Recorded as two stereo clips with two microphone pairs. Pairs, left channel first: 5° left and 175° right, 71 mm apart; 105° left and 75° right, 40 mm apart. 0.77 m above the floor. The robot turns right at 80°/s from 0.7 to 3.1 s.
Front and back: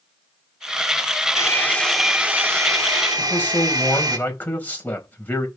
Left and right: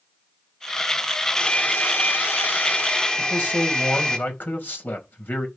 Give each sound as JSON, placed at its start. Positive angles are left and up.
{"t": 1.4, "sound": "a hair dryer", "azimuth_deg": 40, "distance_m": 2.0}
{"t": 3.2, "sound": "a man speaking", "azimuth_deg": 70, "distance_m": 4.5}